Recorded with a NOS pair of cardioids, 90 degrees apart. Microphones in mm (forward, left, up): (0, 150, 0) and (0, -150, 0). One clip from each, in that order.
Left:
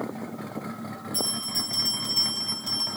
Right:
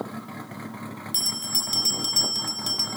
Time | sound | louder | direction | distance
1.1 | a bell | right 3 dB | 65° right | 1.2 m